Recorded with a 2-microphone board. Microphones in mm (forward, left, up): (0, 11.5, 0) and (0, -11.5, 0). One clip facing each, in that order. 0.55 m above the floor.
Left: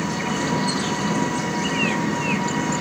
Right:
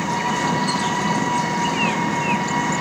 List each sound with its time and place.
0.0 s an engine running: 60° right (ahead or behind), 1.9 m